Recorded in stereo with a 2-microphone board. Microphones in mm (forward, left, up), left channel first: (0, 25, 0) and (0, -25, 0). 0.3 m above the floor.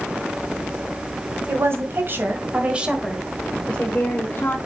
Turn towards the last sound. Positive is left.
turn(degrees=50)  # may be behind; listen again after turning